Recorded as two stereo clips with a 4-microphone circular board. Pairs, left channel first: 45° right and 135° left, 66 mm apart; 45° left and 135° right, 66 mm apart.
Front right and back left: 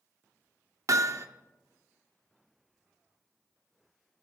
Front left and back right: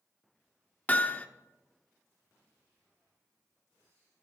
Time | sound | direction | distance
0.9 | hammering | 110° left | 0.7 m